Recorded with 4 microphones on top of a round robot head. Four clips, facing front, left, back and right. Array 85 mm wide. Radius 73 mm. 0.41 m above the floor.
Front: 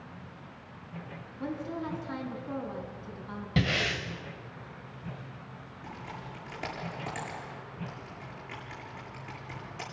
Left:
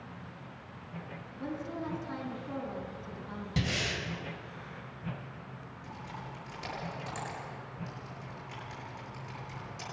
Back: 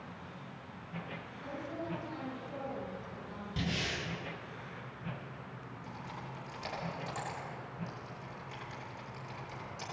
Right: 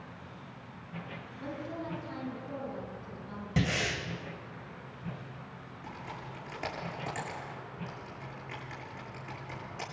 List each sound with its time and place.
1.4 s a woman speaking: 15° left, 6.5 m
3.6 s breathing: 25° right, 3 m
5.8 s typing on a keyboard: 40° right, 8.5 m